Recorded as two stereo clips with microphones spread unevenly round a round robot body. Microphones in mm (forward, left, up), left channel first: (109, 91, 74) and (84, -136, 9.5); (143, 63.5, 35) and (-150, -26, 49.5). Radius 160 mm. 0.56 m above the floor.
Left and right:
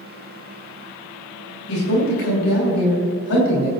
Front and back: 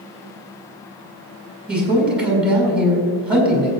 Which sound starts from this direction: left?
A man speaking, at 1.7 s.